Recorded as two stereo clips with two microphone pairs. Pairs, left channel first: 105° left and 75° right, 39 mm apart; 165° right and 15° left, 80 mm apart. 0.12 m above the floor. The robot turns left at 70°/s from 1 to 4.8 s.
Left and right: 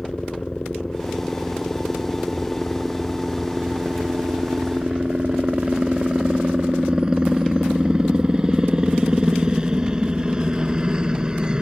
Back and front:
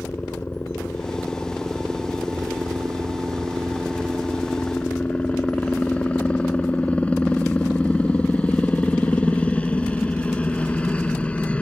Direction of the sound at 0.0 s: 155° left.